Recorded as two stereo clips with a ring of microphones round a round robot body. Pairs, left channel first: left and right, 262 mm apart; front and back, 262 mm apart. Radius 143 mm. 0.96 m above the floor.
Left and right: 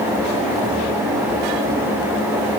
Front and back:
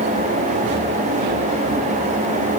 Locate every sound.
Only background noise.